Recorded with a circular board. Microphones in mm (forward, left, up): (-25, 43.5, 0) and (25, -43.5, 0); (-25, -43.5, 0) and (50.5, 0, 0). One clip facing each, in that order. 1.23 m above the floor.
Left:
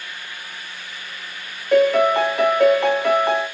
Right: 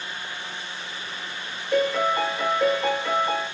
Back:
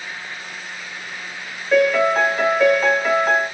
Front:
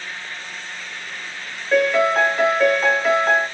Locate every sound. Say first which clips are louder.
1.7 s a piano: left 7 dB, back 1 dB; 120° left, 1.5 m